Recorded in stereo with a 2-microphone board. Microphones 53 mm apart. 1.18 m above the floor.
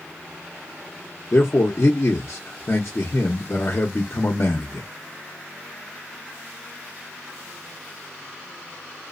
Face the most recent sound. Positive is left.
turn(degrees=55)  # may be behind; listen again after turning